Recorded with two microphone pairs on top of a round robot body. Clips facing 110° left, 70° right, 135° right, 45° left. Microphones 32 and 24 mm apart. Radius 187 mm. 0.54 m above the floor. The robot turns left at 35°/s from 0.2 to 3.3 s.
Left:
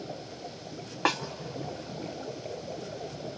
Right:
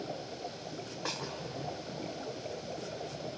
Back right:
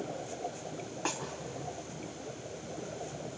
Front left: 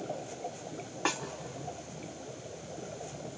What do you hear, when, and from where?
1.1 s a snare drum: 110° left, 0.5 m; by 1.2 s 105° left, 0.5 m